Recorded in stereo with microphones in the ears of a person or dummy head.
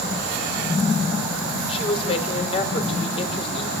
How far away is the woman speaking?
About 4.5 m.